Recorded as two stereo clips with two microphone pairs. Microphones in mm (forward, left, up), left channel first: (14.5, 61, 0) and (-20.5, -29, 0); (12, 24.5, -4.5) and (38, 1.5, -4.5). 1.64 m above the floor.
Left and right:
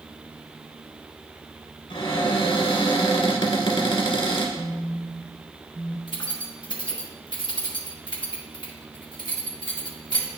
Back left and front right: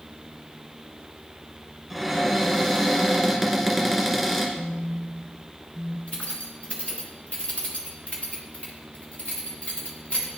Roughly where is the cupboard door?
Ahead left.